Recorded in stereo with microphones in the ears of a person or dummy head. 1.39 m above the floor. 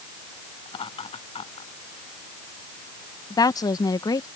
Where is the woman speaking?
25° left (ahead or behind).